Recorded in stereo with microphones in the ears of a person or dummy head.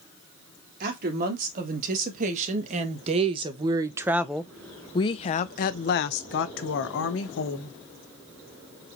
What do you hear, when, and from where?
0.8 s a woman speaking: 50° right (ahead or behind), 2 m; by 7.8 s 75° left (ahead or behind), 1.6 m